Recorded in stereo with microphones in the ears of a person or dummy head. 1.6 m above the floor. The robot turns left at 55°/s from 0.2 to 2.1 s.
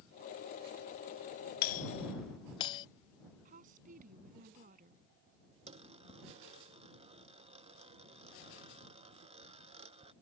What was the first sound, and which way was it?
A doorbell, 55° left (ahead or behind).